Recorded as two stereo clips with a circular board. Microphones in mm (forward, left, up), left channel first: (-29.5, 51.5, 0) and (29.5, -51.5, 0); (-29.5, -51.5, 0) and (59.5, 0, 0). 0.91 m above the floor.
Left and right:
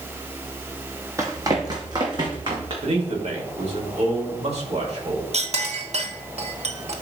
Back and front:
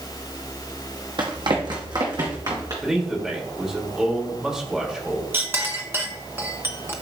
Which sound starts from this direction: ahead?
Running footsteps, at 1.2 s.